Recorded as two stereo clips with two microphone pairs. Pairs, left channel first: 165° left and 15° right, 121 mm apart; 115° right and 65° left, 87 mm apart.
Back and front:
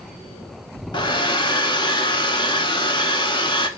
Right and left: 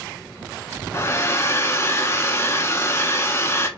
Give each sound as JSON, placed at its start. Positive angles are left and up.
{"t": 0.9, "sound": "a hair dryer", "azimuth_deg": -160, "distance_m": 0.5}